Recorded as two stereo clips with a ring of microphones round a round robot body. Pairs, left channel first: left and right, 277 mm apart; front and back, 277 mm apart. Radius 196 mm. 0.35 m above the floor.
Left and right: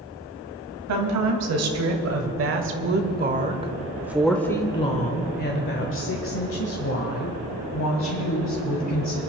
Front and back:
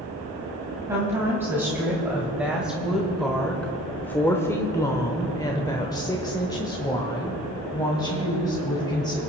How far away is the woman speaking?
About 2 m.